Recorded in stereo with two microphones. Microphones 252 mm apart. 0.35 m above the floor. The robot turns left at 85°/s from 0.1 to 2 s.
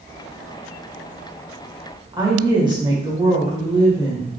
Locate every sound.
2.1 s a woman speaking: 15° right (ahead or behind), 1.2 m